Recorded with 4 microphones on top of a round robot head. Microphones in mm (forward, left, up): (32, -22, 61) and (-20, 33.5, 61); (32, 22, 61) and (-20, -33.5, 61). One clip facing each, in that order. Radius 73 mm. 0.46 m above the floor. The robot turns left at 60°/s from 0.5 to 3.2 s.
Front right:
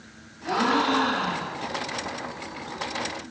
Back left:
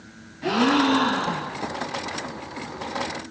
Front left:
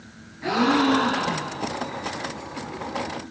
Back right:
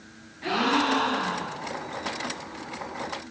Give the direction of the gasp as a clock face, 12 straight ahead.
8 o'clock.